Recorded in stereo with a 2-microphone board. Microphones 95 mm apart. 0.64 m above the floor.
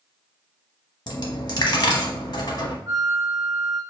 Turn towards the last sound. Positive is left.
turn(degrees=-35)  # may be behind; listen again after turning